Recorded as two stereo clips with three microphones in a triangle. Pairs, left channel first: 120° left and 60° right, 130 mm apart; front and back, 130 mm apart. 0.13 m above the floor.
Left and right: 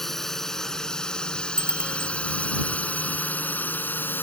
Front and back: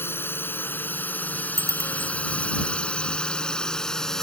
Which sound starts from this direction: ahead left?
A drone, at 0.0 s.